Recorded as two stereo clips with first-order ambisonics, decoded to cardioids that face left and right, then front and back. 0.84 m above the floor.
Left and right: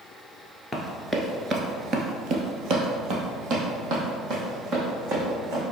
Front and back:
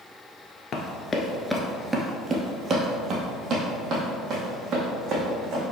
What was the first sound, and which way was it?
Running footsteps, 10° left.